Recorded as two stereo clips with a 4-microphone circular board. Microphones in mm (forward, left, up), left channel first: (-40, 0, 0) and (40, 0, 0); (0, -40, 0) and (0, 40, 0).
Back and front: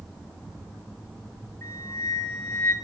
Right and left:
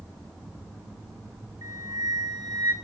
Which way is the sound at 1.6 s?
120° left.